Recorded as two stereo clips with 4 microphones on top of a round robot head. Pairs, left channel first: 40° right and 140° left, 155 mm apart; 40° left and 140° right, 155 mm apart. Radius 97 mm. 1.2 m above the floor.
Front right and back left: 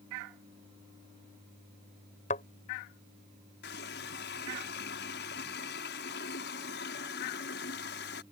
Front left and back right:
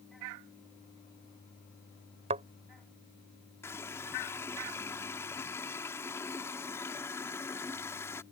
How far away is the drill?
I don't hear a drill.